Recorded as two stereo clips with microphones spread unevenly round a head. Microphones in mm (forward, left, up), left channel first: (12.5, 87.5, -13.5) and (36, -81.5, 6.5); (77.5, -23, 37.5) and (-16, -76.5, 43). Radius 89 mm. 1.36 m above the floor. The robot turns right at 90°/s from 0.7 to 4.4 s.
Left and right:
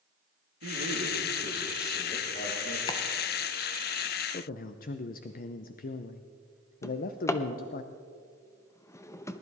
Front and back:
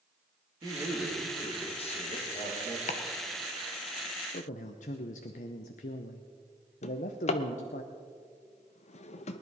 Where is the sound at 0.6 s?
100° right, 3 m; by 2.8 s 90° left, 3 m.